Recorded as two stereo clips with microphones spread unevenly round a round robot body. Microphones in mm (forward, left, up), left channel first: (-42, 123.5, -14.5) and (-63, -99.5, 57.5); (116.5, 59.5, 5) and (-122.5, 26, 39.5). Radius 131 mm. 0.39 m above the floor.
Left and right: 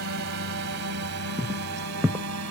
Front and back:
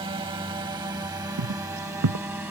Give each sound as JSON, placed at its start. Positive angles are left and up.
{"t": 0.0, "sound": "a drone", "azimuth_deg": -100}
{"t": 1.4, "sound": "footsteps", "azimuth_deg": -165}